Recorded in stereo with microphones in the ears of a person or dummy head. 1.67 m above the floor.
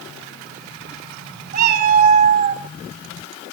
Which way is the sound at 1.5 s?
50° right (ahead or behind).